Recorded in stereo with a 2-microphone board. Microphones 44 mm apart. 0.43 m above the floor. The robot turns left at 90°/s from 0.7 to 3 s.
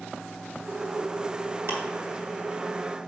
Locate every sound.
1.7 s ticking: 65° right (ahead or behind), 2 m